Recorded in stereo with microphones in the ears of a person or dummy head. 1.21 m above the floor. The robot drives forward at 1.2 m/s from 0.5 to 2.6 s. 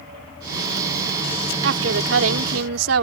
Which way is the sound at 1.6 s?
75° right (ahead or behind).